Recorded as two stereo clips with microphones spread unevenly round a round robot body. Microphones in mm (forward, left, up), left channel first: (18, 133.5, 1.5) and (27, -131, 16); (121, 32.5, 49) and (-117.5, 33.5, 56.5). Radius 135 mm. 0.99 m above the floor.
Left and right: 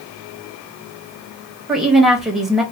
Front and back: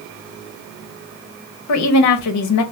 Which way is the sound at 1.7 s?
Straight ahead.